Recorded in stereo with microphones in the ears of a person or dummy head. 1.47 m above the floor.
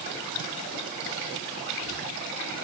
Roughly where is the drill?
No drill in this recording.